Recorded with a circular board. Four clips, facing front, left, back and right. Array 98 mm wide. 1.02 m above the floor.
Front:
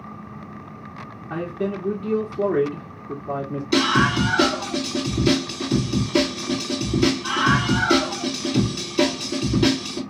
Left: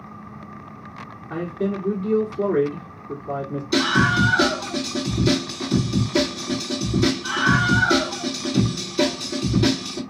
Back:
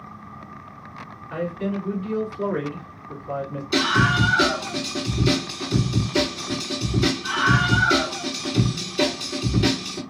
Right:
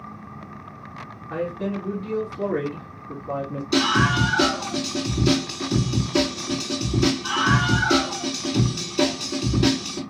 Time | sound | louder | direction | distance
1.3 | a man speaking | left 2 dB, front 1 dB | 15° left | 2 m
3.7 | a scream | left 1 dB, front 1 dB | 5° right | 3 m